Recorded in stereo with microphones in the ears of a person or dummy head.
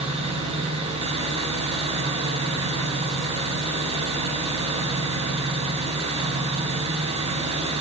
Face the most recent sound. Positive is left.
turn(degrees=-30)  # may be behind; listen again after turning